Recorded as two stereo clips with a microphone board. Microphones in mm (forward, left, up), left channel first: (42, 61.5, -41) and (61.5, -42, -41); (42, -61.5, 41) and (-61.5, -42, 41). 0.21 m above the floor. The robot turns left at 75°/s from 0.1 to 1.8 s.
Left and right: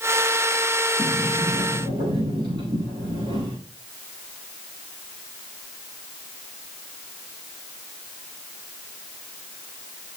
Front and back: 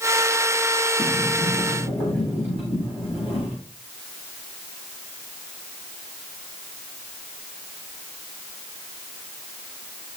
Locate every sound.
1.0 s a sliding door: 25° left, 9 m; by 3.6 s 35° right, 9 m